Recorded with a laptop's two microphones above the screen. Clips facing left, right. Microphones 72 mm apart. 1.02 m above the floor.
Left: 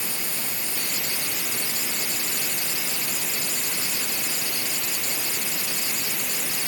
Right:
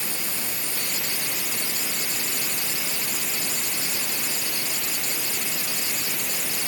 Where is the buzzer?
No buzzer in this recording.